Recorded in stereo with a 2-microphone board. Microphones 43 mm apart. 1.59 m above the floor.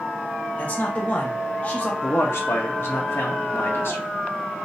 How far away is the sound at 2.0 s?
About 1.1 m.